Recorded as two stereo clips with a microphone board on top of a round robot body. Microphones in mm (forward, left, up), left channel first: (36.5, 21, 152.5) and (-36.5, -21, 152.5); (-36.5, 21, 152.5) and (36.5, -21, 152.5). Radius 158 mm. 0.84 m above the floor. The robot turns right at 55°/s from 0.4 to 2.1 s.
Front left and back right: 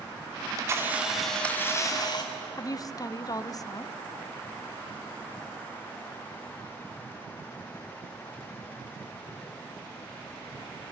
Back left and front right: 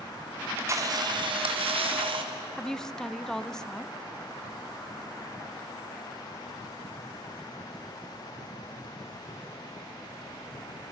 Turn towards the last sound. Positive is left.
turn(degrees=65)